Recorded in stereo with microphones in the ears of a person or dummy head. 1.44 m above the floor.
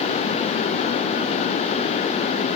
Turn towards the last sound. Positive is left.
No sound to turn to.